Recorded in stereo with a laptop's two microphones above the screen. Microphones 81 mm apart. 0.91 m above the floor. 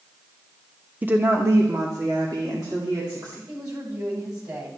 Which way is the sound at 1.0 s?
20° right (ahead or behind).